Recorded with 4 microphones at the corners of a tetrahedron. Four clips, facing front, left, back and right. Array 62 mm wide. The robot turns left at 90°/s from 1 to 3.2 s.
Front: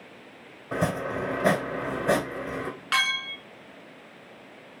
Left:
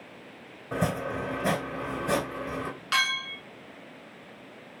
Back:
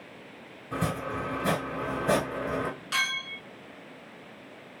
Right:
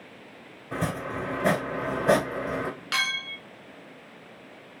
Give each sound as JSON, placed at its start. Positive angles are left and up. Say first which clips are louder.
{"t": 0.7, "sound": "chopping", "louder": "left 1 dB, front 3 dB", "azimuth_deg": 20, "distance_m": 3.5}
{"t": 2.9, "sound": "a clink", "louder": "left 2 dB, front 5 dB", "azimuth_deg": 10, "distance_m": 1.4}